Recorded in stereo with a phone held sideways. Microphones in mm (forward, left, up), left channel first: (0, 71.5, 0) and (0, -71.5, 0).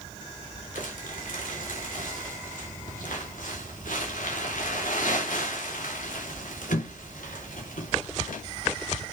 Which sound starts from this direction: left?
Crumpling, at 0.8 s.